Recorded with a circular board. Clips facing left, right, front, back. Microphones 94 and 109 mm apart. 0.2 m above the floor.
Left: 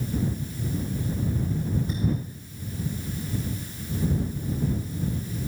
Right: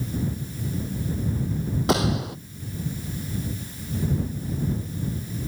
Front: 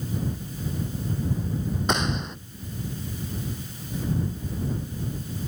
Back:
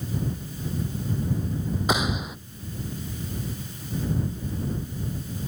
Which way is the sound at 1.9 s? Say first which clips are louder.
Right 6 dB, back 1 dB; 95° right.